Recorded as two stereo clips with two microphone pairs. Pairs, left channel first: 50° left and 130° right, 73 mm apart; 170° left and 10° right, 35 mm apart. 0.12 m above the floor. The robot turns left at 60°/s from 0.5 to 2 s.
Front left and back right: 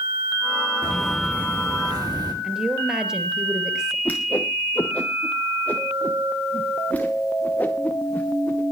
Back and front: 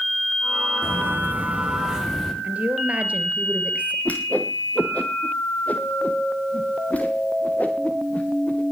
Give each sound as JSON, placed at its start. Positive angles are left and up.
{"t": 0.8, "sound": "footsteps", "azimuth_deg": -20, "distance_m": 7.5}
{"t": 2.4, "sound": "a woman speaking", "azimuth_deg": -50, "distance_m": 3.0}
{"t": 4.0, "sound": "a whoosh", "azimuth_deg": 120, "distance_m": 3.0}